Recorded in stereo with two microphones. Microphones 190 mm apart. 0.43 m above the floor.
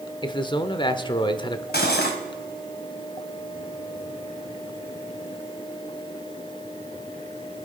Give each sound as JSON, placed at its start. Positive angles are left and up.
{"t": 0.2, "sound": "a man speaking", "side_deg": 25, "distance_m": 0.9}
{"t": 1.7, "sound": "cutlery clinking", "side_deg": 60, "distance_m": 1.8}